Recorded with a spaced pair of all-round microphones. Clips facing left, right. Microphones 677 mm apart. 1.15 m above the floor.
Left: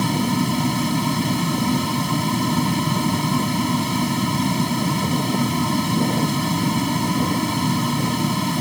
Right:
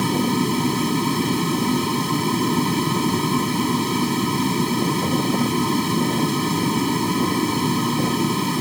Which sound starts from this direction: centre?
A fan, at 0.0 s.